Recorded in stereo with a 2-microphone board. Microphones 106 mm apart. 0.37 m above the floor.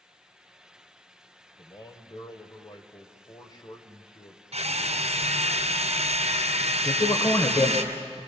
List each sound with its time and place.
1.6 s a man speaking: 40° left (ahead or behind), 1.8 m
4.5 s a drill: 75° right (ahead or behind), 2.5 m
6.8 s a man speaking: 40° left (ahead or behind), 1.5 m